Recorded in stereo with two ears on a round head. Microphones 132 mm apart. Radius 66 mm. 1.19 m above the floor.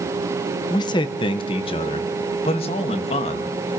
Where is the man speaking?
30° left (ahead or behind), 0.9 m; by 3.5 s 40° left (ahead or behind), 2.5 m.